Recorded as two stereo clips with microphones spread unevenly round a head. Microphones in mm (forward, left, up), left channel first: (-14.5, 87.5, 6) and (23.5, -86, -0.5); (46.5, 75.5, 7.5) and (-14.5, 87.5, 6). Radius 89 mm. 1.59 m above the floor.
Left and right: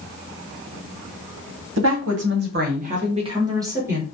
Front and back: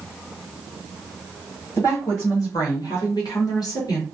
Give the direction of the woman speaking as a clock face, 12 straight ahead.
3 o'clock.